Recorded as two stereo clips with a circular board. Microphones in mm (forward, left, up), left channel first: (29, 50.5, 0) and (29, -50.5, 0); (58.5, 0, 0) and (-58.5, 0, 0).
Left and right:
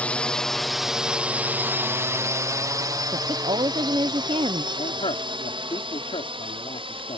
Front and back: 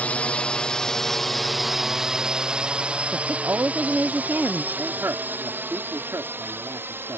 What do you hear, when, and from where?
0.0 s a drone: 50° left; by 7.2 s 110° right
3.1 s a woman speaking: 110° right
4.7 s a man speaking: 115° left